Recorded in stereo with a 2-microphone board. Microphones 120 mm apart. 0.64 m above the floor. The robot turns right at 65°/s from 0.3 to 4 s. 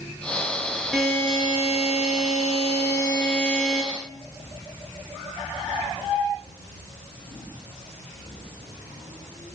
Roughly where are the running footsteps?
No running footsteps in this recording.